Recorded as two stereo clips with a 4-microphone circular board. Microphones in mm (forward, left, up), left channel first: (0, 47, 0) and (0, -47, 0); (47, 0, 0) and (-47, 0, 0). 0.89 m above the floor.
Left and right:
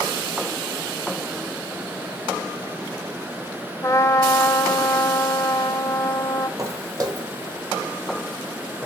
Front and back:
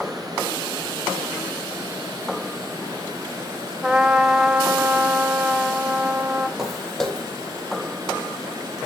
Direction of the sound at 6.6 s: 95° right.